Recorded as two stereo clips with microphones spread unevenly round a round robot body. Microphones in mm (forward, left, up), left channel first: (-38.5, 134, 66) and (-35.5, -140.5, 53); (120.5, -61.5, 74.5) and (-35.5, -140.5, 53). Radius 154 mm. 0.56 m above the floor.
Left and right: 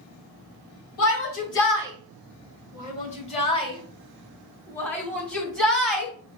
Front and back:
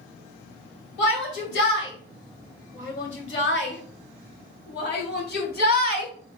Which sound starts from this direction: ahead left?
A shout, at 1.0 s.